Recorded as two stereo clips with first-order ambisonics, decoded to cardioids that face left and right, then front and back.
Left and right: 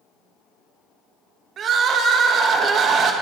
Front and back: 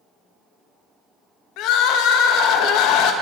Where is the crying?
30° right, 0.9 m.